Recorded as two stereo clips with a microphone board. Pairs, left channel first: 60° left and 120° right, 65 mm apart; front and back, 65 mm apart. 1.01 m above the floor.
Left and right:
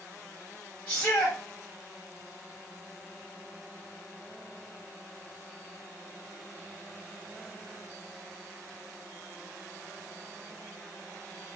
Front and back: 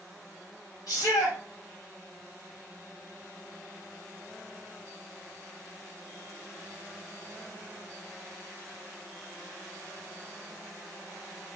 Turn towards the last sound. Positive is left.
turn(degrees=-10)